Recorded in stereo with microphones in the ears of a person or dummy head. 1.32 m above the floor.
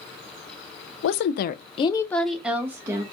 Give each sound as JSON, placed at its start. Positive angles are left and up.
{"t": 1.0, "sound": "a woman speaking", "side_deg": 75, "distance_m": 0.6}